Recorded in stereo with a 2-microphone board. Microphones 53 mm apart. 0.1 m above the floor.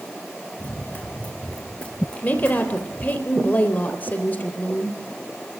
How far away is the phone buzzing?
No phone buzzing in this recording.